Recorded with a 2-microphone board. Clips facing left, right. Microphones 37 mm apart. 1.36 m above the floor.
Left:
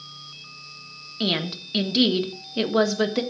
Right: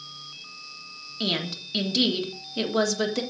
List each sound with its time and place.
1.2 s a woman speaking: 15° left (ahead or behind), 1.5 m